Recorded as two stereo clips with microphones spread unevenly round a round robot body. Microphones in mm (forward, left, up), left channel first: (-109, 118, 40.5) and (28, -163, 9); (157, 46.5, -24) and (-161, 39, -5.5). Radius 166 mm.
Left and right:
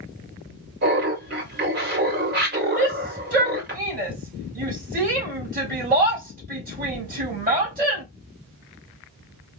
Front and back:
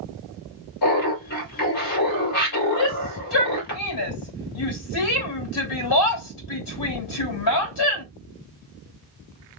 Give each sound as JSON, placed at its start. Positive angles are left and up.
{"t": 0.8, "sound": "laughter", "azimuth_deg": -10, "distance_m": 2.5}
{"t": 2.8, "sound": "a shout", "azimuth_deg": -5, "distance_m": 2.0}